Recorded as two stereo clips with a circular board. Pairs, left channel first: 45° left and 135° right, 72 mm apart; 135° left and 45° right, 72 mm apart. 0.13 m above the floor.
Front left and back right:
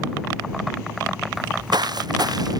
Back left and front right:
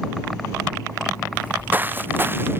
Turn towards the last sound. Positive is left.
turn(degrees=-105)